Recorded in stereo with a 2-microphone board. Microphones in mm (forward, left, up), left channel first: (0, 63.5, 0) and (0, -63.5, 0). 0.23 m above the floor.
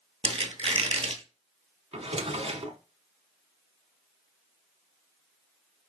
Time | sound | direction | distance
0.2 | a squeak | 50° right (ahead or behind) | 0.8 m
1.9 | a drawer | 55° right (ahead or behind) | 0.7 m